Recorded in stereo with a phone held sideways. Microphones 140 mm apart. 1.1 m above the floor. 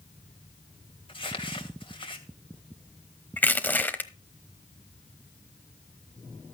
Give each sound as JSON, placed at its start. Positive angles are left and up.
{"t": 1.1, "sound": "crumpling", "side_deg": 40, "distance_m": 2.0}
{"t": 3.4, "sound": "crushing", "side_deg": 15, "distance_m": 1.0}